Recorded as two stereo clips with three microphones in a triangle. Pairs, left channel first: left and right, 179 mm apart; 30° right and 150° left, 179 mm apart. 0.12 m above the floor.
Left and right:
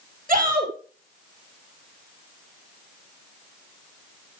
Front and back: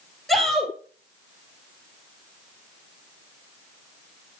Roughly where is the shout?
Behind right.